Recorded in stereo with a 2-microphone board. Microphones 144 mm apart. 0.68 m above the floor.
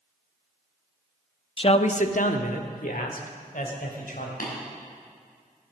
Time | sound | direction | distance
1.6 | a man speaking | 35° left (ahead or behind) | 0.5 m
4.4 | tapping | 80° left | 5 m